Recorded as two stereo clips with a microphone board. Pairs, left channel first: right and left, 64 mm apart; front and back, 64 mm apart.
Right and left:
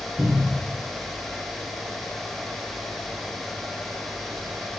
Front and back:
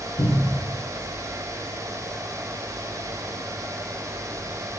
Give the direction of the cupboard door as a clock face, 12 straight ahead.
12 o'clock.